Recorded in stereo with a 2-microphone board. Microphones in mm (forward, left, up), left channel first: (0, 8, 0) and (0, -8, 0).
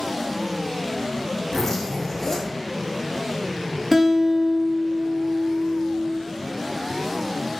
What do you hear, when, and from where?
1.5 s a zipper: 30° left (ahead or behind), 0.7 m
3.9 s a guitar: 15° right (ahead or behind), 0.5 m